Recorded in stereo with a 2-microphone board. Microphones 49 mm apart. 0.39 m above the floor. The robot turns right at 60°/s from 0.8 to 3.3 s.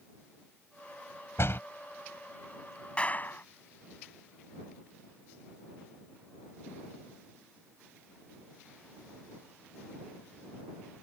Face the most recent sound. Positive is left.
turn(degrees=40)  # may be behind; listen again after turning